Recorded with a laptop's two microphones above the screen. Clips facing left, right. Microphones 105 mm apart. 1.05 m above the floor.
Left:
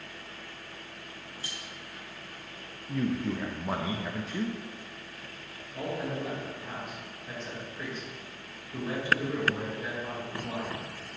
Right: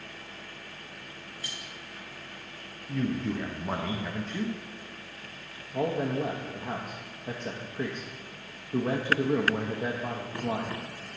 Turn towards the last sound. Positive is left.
turn(degrees=-55)  # may be behind; listen again after turning